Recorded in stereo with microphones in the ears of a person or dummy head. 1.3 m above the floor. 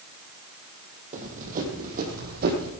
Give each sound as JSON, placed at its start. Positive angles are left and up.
{"t": 1.1, "sound": "running footsteps", "side_deg": -40, "distance_m": 3.5}